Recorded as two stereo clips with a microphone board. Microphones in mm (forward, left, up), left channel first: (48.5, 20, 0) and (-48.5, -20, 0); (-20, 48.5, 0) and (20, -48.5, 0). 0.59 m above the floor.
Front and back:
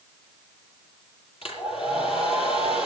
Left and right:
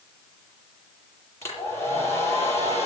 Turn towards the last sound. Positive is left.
turn(degrees=50)